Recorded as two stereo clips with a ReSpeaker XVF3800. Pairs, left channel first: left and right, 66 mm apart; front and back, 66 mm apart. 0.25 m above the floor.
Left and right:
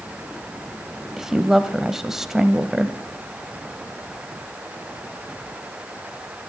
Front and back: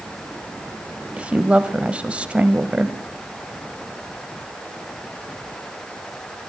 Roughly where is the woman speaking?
Behind.